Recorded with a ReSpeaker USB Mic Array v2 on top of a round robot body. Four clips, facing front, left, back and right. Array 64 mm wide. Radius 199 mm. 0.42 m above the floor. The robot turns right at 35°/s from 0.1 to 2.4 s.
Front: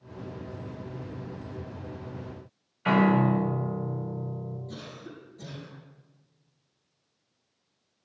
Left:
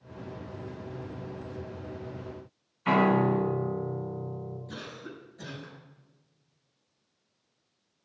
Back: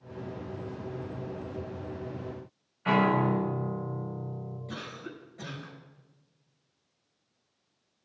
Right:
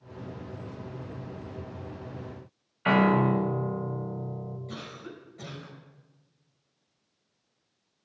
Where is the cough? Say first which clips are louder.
Right 1 dB, back 2 dB; 145° right, 5.5 m.